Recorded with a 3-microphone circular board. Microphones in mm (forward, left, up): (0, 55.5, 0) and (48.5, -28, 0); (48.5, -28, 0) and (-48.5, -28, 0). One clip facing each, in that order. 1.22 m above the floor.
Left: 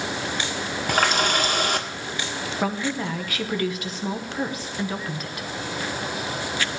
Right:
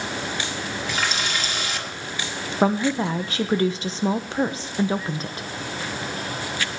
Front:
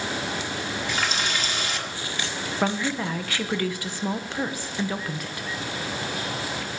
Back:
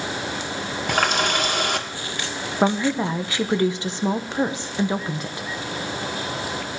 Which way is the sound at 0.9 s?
150° left.